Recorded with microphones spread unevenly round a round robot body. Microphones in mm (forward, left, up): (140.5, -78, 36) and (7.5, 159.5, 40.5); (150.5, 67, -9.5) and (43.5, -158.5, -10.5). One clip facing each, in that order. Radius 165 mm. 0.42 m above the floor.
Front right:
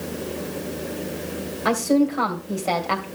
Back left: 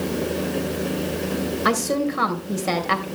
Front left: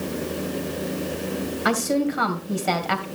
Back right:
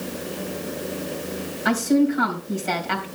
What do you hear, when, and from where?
1.6 s a woman speaking: 55° left, 2.5 m